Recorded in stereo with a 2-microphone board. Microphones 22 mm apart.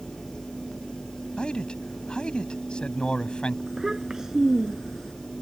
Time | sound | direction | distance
1.4 | a man speaking | 45° left (ahead or behind) | ?
3.7 | a child speaking | 25° right (ahead or behind) | ?